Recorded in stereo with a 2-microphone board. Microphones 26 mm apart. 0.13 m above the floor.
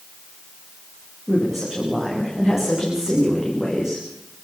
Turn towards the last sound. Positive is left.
turn(degrees=-25)  # may be behind; listen again after turning